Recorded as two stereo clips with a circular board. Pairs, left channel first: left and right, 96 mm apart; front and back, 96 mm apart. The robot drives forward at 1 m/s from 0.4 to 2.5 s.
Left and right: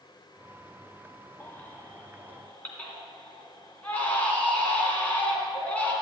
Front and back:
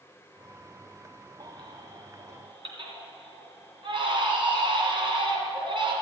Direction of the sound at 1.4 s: 155° left.